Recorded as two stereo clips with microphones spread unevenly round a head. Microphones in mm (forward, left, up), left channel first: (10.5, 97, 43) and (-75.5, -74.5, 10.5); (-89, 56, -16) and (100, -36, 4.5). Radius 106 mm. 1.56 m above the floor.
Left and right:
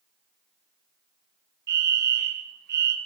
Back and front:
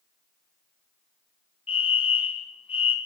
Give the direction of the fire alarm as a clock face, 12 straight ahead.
5 o'clock.